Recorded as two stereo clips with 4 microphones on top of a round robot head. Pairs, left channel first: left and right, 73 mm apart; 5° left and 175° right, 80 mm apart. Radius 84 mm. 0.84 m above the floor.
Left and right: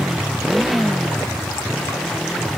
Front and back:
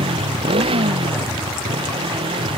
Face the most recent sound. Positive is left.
turn(degrees=175)